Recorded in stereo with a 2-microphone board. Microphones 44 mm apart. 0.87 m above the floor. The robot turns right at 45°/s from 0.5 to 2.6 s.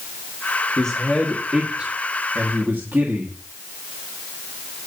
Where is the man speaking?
160° left, 1.7 m; by 3.4 s 120° right, 1.7 m.